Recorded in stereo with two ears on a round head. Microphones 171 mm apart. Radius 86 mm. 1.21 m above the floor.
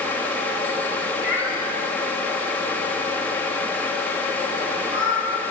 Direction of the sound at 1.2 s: 10° right (ahead or behind).